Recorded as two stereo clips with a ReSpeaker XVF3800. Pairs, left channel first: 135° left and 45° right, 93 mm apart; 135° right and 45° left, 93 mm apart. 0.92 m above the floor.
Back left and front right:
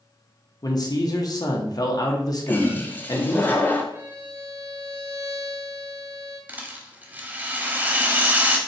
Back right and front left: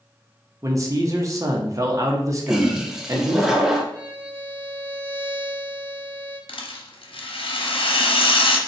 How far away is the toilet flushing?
About 0.7 m.